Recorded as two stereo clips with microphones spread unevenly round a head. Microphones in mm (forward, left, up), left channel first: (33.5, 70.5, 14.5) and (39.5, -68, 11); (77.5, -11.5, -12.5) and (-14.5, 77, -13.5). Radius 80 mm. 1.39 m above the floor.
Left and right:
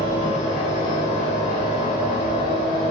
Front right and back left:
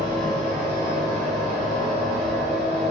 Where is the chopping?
I don't hear chopping.